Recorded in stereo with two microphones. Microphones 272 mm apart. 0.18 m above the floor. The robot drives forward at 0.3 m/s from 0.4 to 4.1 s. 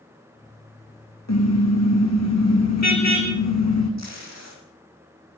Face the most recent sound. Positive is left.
turn(degrees=-75)  # may be behind; listen again after turning